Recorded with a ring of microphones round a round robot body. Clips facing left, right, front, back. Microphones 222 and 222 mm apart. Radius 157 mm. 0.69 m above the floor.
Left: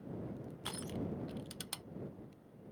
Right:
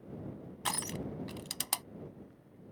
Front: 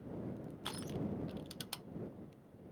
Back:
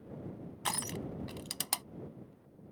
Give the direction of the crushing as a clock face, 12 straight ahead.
5 o'clock.